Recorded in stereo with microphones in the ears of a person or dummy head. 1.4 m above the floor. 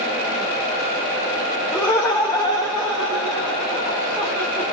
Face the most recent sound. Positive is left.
turn(degrees=15)  # may be behind; listen again after turning